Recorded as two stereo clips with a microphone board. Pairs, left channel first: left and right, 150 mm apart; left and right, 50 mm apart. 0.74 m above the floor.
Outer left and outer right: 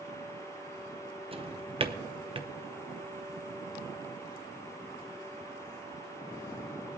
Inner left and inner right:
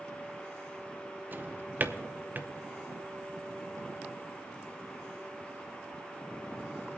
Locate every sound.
1.3 s a drawer: 35° right (ahead or behind), 0.7 m